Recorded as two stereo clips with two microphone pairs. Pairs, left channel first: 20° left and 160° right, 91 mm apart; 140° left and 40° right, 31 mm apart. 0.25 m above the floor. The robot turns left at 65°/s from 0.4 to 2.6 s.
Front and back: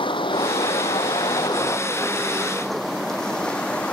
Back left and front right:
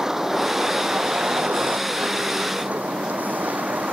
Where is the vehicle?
30° left; by 3.9 s 55° right.